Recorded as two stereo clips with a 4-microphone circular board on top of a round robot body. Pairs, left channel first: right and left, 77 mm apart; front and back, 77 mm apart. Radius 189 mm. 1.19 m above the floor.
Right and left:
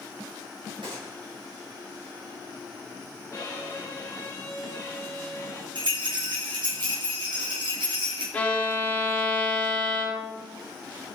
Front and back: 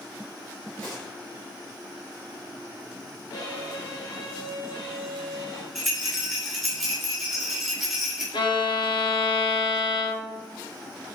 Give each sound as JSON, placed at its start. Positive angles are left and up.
{"t": 0.8, "sound": "a gunshot", "azimuth_deg": 70, "distance_m": 3.5}
{"t": 3.3, "sound": "a violin", "azimuth_deg": -35, "distance_m": 1.0}
{"t": 5.8, "sound": "a rattle", "azimuth_deg": 90, "distance_m": 3.0}
{"t": 8.3, "sound": "a violin", "azimuth_deg": -20, "distance_m": 1.6}